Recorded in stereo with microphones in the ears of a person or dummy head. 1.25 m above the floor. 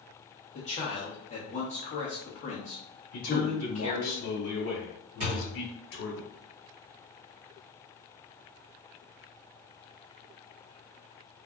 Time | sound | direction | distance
0.6 | a man speaking | 35° left (ahead or behind) | 0.9 m
3.1 | a man speaking | 85° left | 1.2 m
5.2 | a thud | 40° right (ahead or behind) | 1.7 m